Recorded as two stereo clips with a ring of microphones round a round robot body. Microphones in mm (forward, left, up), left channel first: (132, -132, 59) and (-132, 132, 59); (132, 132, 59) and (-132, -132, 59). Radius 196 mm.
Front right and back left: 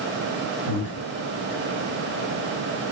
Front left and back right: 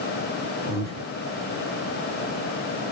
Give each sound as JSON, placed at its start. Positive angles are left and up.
{"t": 0.7, "sound": "breathing", "azimuth_deg": -70, "distance_m": 1.1}